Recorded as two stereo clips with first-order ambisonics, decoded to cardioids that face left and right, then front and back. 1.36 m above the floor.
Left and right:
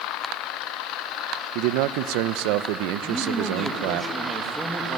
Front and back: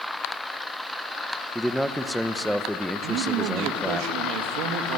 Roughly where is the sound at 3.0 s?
Behind.